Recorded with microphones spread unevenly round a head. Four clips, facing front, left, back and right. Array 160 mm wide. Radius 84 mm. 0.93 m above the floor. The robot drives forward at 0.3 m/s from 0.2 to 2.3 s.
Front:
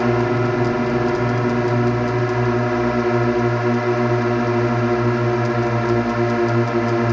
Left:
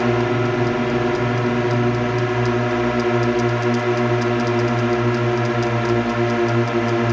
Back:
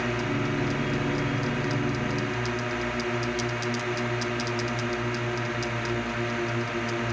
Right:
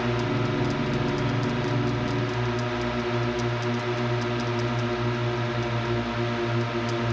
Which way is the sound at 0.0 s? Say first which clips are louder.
Left 8 dB, front 10 dB; 45° left.